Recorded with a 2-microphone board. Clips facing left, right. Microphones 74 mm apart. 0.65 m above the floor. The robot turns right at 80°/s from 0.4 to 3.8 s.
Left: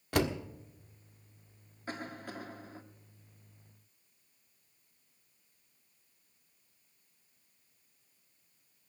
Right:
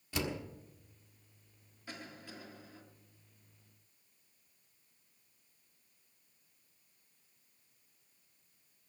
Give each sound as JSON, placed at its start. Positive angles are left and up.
{"t": 0.1, "sound": "a door slam", "side_deg": 60, "distance_m": 1.4}
{"t": 1.9, "sound": "a cough", "azimuth_deg": 55, "distance_m": 1.7}